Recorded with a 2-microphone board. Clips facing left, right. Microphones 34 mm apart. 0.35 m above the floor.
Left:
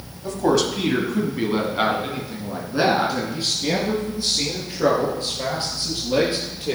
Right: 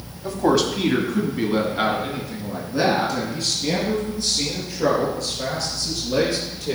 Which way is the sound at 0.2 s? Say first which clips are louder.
Even; 10° right (ahead or behind).